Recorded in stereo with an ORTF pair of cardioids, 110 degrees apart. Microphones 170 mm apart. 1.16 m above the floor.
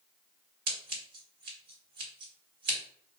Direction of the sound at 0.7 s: 60° right.